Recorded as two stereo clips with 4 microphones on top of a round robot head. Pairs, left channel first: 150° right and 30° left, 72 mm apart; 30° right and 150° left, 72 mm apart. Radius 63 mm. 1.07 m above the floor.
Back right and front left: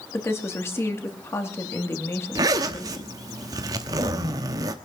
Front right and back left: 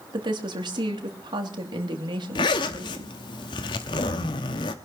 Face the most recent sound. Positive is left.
turn(degrees=-10)